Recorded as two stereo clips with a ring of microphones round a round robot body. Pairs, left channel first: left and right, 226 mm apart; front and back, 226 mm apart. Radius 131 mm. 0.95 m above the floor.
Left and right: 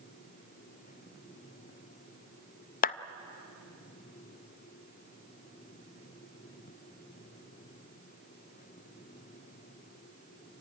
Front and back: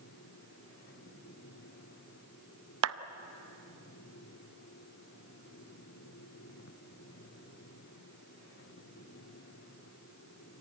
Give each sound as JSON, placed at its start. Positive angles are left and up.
{"t": 2.8, "sound": "a clap", "azimuth_deg": 145, "distance_m": 0.6}